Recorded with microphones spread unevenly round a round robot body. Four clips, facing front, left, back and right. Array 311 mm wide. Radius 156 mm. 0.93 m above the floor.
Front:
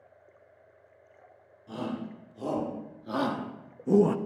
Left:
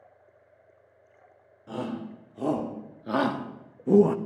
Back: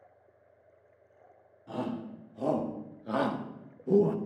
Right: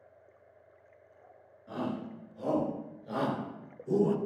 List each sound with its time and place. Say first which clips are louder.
1.7 s a shout: left 2 dB, even; 105° left, 3.5 m; by 4.2 s 50° left, 1.3 m